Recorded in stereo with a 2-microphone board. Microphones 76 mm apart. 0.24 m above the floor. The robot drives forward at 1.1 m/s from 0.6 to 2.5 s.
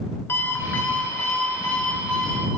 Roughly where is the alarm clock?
Left.